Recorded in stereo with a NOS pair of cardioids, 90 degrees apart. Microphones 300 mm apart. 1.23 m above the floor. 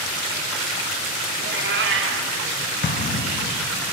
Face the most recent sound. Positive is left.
turn(degrees=30)